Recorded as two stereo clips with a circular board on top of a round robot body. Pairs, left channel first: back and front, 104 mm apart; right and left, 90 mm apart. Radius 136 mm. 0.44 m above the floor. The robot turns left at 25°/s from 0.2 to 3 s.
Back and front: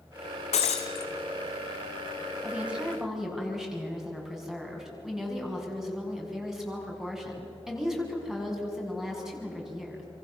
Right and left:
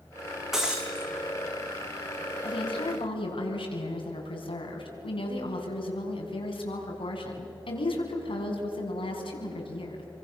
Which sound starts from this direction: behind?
Breaking glass, at 0.5 s.